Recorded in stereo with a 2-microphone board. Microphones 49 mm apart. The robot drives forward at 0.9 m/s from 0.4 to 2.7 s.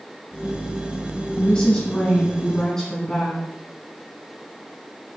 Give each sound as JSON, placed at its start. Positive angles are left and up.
{"t": 1.4, "sound": "a woman speaking", "side_deg": 25, "distance_m": 1.4}